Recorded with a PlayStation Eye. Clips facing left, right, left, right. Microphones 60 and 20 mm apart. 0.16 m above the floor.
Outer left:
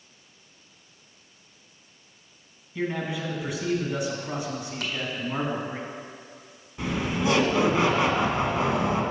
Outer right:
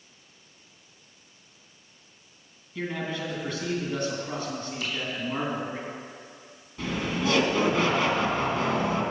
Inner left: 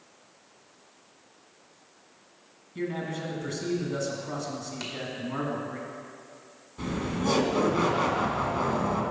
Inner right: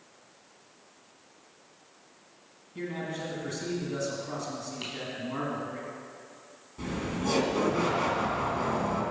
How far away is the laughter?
About 1.1 m.